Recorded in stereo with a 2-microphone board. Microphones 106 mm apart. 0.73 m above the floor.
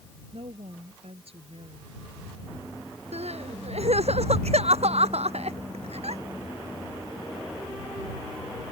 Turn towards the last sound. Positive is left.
turn(degrees=-80)